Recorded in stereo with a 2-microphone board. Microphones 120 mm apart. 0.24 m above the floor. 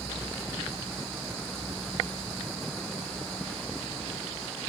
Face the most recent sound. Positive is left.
No sound to turn to.